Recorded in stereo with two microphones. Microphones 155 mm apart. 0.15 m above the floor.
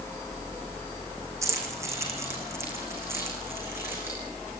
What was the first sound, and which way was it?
Keys jangling, 20° right (ahead or behind).